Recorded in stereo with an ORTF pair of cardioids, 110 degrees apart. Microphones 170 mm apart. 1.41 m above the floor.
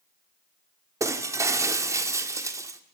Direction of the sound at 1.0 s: 20° right.